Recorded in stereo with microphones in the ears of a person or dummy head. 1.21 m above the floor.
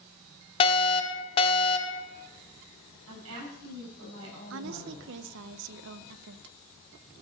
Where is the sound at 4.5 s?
65° right (ahead or behind), 0.7 m.